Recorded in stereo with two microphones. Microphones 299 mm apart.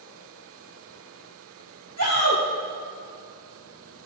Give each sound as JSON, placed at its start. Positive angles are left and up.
{"t": 2.0, "sound": "a shout", "side_deg": -70, "distance_m": 3.0}